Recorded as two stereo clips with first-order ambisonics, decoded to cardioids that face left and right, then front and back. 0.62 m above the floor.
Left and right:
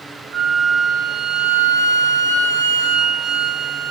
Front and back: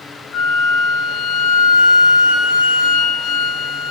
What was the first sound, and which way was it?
A flute, 50° right.